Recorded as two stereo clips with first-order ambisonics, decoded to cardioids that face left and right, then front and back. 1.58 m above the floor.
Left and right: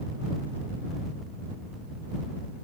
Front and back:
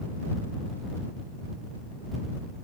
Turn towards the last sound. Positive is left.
No sound to turn to.